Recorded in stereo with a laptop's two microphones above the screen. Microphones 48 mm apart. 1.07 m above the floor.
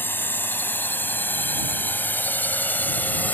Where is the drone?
50° left (ahead or behind); by 3.4 s 40° left (ahead or behind).